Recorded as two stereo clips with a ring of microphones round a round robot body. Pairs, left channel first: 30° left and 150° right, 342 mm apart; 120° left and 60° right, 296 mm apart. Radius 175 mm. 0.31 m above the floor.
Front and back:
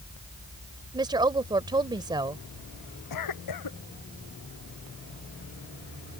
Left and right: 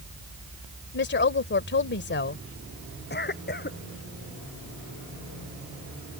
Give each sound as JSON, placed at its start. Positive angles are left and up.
{"t": 0.9, "sound": "a woman speaking", "azimuth_deg": 140}
{"t": 3.1, "sound": "a cough", "azimuth_deg": 65}